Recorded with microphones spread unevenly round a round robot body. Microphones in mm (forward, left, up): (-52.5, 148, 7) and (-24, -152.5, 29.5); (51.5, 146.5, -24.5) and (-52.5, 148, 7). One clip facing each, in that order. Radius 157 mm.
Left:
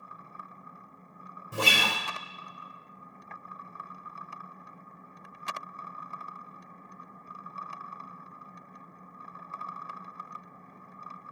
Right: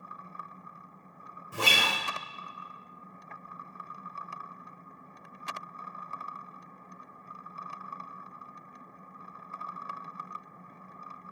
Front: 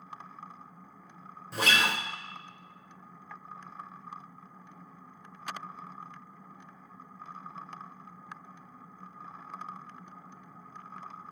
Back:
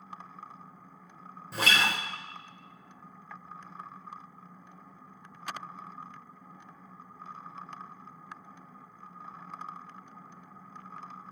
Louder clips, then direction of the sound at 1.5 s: Left 2 dB, even; 75° left.